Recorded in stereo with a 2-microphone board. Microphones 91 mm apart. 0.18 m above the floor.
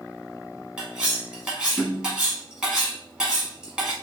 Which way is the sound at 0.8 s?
10° right (ahead or behind).